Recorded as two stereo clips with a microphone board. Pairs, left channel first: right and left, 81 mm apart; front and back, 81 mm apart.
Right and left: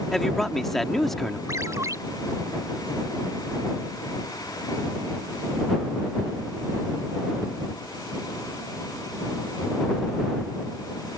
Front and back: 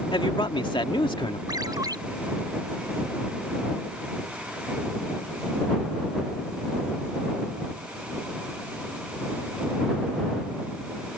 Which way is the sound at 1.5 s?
140° left.